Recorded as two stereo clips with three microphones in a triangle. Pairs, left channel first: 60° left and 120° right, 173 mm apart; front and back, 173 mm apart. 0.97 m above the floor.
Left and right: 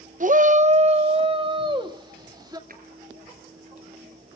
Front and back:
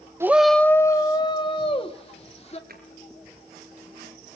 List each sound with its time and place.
0.2 s a shout: 110° right, 0.6 m; by 2.6 s 50° right, 2 m
2.7 s a drawer: 150° right, 4.5 m